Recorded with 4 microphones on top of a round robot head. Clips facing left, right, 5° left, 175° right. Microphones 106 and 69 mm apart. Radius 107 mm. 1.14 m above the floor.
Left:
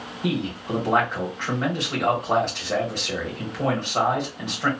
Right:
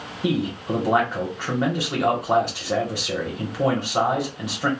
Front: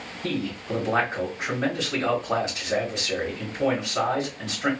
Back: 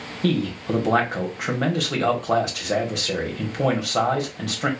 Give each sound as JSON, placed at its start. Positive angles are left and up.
{"t": 0.2, "sound": "a man speaking", "azimuth_deg": -170, "distance_m": 1.3}